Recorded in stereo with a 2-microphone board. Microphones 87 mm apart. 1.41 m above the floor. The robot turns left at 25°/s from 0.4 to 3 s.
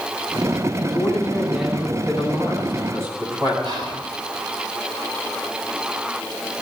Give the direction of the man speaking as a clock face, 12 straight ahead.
11 o'clock.